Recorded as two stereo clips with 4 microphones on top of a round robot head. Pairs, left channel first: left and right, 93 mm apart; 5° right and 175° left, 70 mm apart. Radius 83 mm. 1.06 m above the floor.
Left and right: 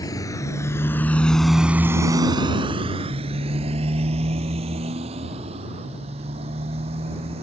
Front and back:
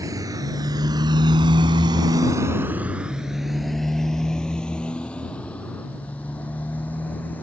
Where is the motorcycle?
140° left; by 7.4 s 75° right.